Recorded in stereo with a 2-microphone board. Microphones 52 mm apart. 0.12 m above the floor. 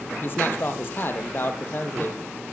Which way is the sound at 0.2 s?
45° left (ahead or behind).